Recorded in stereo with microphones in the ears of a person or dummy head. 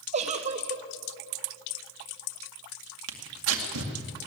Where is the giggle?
35° right (ahead or behind), 1.0 m.